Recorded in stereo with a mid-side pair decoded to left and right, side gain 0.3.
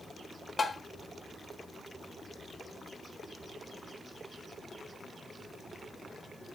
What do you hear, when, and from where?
0.6 s tapping: 50° left, 0.7 m